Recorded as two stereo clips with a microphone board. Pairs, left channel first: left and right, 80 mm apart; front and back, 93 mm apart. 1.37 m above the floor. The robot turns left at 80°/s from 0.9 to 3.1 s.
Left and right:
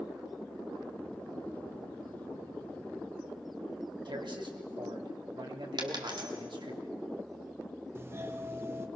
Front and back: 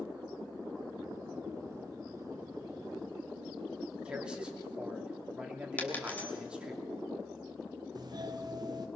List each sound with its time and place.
4.0 s a man speaking: 100° right, 3 m
5.8 s a dropped coin: 70° right, 3 m
8.0 s a doorbell: 145° right, 1.1 m